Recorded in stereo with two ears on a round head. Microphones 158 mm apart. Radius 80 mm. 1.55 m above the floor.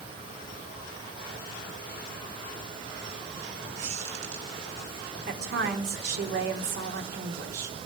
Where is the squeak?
45° right (ahead or behind), 2.5 m.